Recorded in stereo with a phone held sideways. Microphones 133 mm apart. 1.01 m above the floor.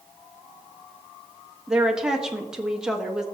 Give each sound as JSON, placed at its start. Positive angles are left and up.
{"t": 1.7, "sound": "a woman speaking", "side_deg": -5, "distance_m": 1.3}